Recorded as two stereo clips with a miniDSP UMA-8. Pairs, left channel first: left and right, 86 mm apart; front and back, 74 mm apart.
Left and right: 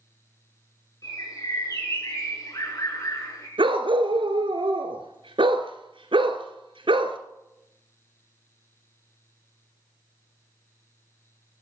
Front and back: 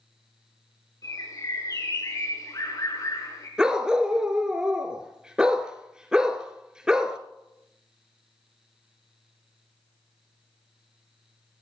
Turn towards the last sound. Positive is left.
turn(degrees=-100)